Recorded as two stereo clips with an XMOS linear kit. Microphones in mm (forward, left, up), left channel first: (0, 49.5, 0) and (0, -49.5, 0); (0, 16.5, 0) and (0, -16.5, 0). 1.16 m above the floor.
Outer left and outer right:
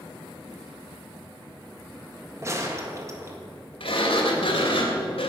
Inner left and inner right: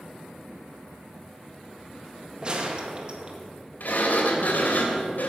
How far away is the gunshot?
About 1.8 m.